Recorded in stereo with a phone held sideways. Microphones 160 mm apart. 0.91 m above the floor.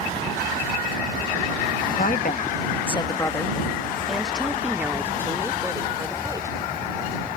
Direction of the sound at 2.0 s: 65° left (ahead or behind).